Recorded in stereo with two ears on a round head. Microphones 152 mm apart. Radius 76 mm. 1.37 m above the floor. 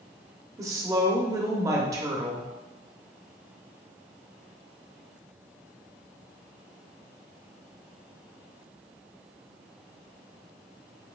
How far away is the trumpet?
No trumpet in this recording.